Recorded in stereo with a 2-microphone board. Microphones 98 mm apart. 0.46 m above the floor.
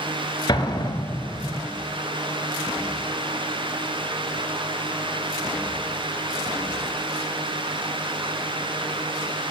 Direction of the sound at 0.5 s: 45° left (ahead or behind).